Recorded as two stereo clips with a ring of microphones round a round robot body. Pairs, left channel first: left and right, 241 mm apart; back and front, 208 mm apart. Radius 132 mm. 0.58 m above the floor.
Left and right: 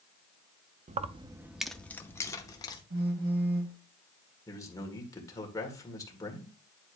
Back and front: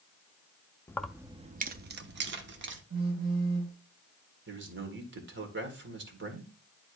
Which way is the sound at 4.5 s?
15° left.